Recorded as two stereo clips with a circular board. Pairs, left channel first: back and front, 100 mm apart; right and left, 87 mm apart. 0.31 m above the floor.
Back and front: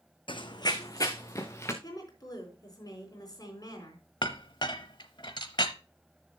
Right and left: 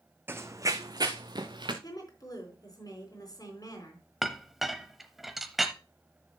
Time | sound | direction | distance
0.3 | running footsteps | 150° left | 0.8 m
1.8 | a woman speaking | 130° right | 4 m
4.2 | a clink | 175° left | 0.8 m